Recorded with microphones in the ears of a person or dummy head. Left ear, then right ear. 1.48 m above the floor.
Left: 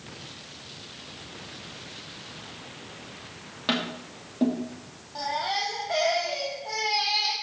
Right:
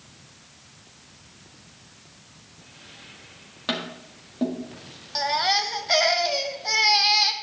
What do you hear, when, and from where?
3.7 s tapping: centre (ahead or behind), 1.6 m
5.2 s a baby crying: 60° right (ahead or behind), 0.9 m